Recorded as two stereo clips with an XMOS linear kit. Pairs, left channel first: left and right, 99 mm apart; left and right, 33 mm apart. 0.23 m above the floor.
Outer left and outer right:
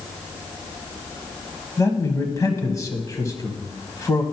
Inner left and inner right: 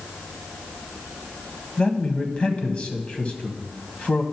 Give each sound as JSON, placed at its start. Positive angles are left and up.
{"t": 1.8, "sound": "a man speaking", "side_deg": 35, "distance_m": 1.3}